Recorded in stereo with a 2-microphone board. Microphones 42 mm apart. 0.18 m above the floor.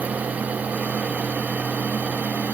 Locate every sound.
Only background noise.